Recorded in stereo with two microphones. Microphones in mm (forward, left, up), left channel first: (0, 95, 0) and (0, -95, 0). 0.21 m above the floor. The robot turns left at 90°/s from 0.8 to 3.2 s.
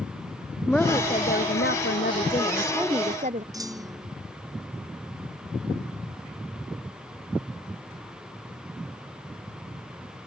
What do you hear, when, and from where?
0.7 s a woman speaking: 175° left; by 3.4 s 40° right
3.5 s a clunk: 20° right (ahead or behind)